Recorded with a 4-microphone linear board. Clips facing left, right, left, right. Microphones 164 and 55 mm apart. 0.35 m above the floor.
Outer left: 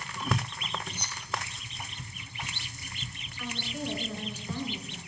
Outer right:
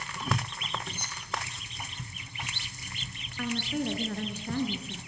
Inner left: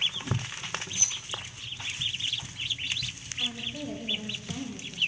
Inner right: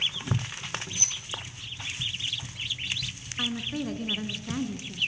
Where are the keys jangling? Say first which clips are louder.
Outer left 1 dB, even; 50° right (ahead or behind), 2 m.